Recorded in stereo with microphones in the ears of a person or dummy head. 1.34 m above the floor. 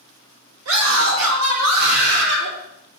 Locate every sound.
0.7 s a scream: 85° right, 5.5 m; by 2.5 s 75° right (ahead or behind), 4.5 m